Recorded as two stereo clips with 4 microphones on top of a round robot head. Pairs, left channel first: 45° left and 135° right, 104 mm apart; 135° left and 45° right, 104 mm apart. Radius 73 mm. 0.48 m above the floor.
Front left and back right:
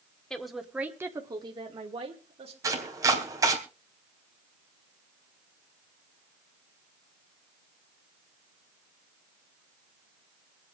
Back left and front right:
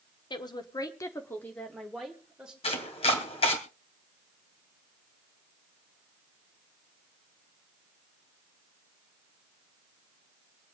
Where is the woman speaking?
125° left, 1.8 m; by 2.5 s 125° right, 2.5 m.